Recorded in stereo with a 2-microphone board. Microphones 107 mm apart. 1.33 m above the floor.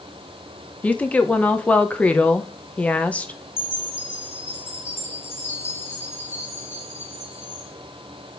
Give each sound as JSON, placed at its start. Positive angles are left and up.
{"t": 0.8, "sound": "a woman speaking", "side_deg": 15, "distance_m": 0.9}
{"t": 3.6, "sound": "a chime", "side_deg": 20, "distance_m": 3.0}